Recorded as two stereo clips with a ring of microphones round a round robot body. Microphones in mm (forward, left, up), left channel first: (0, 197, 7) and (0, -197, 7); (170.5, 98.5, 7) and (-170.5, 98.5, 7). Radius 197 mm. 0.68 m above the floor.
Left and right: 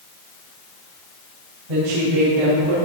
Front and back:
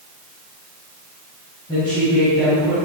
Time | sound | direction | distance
1.7 | a woman speaking | 80° right | 4 m